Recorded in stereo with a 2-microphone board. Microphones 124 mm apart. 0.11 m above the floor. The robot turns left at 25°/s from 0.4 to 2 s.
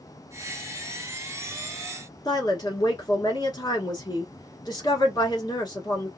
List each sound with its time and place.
2.2 s a woman speaking: 35° left (ahead or behind), 1.2 m